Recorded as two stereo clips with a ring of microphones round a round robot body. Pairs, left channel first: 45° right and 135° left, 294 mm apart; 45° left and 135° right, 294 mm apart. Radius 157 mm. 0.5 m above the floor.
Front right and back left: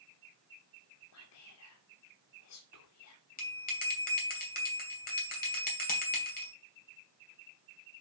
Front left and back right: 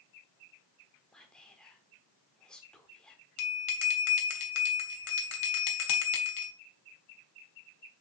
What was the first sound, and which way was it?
Whispering, 40° right.